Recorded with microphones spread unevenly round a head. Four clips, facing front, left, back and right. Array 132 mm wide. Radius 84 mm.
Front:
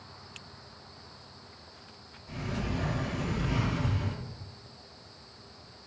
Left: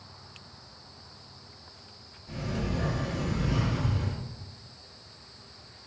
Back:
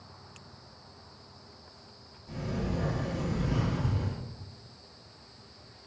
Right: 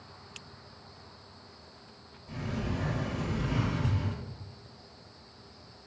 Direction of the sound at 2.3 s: Straight behind.